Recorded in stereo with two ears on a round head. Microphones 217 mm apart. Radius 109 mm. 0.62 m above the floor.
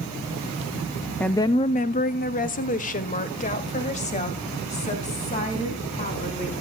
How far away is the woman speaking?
About 0.6 m.